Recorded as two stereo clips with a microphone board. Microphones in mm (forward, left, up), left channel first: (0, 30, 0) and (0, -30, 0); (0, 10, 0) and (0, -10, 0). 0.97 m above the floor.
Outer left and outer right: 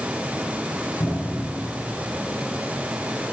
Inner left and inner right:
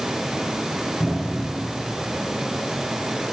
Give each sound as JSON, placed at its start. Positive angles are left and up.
{"t": 1.0, "sound": "a cupboard door", "side_deg": 70, "distance_m": 6.5}